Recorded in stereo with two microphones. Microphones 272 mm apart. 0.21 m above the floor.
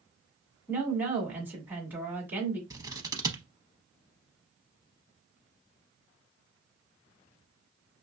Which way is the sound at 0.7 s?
5° right (ahead or behind).